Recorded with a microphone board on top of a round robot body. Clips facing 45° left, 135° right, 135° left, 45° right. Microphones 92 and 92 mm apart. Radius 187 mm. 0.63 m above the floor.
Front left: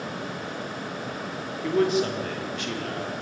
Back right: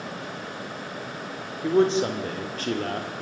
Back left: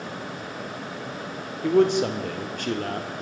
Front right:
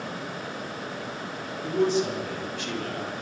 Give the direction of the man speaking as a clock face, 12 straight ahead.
7 o'clock.